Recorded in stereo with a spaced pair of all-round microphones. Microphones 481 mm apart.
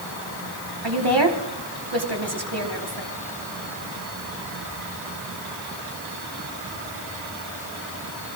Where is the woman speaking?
60° right (ahead or behind), 3 m.